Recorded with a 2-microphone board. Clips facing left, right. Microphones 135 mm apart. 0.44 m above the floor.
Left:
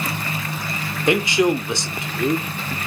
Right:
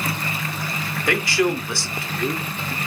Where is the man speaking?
20° left (ahead or behind), 0.8 m.